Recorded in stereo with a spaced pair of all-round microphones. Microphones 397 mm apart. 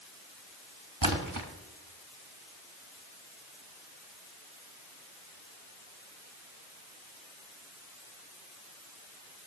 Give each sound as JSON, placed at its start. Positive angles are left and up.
{"t": 1.0, "sound": "a splash", "side_deg": -55, "distance_m": 1.5}